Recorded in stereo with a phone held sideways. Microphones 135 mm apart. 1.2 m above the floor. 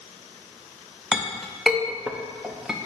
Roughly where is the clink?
Centre.